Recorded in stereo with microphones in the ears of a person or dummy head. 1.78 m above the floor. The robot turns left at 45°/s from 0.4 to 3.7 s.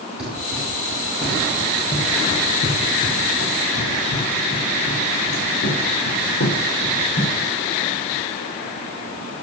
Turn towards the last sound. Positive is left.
turn(degrees=65)  # may be behind; listen again after turning